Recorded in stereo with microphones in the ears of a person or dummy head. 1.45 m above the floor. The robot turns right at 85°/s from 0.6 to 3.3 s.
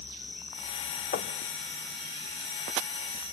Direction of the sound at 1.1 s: 45° left (ahead or behind).